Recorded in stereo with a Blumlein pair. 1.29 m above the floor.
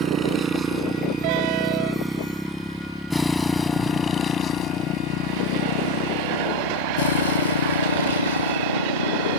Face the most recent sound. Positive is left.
turn(degrees=75)